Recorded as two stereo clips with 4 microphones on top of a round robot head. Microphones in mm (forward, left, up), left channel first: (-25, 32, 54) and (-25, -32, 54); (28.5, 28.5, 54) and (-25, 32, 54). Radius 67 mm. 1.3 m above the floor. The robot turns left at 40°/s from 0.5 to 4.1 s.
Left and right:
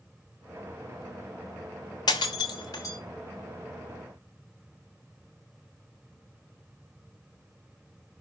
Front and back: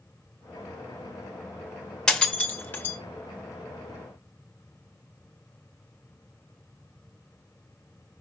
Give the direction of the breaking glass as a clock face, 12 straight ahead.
10 o'clock.